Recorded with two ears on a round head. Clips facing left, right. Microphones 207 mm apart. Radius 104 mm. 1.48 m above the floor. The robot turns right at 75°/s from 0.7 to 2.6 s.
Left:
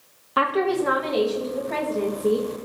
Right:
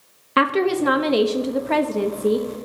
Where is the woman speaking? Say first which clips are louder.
Right 3 dB; 145° right, 0.6 m; by 2.6 s 5° right, 0.6 m.